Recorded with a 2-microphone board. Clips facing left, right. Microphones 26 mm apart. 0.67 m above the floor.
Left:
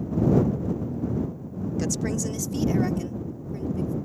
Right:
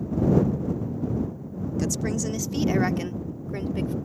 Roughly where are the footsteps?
I don't hear footsteps.